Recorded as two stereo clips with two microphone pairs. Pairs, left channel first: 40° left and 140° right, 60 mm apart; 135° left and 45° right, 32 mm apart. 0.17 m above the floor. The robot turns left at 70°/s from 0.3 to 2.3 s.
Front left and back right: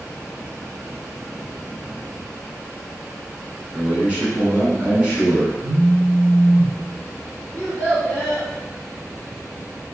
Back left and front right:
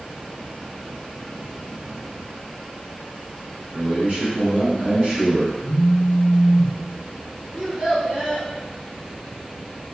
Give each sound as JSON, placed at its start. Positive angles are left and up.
{"t": 3.7, "sound": "a man speaking", "azimuth_deg": -75, "distance_m": 1.5}
{"t": 5.6, "sound": "a phone buzzing", "azimuth_deg": 160, "distance_m": 0.8}
{"t": 7.5, "sound": "a child speaking", "azimuth_deg": -125, "distance_m": 1.2}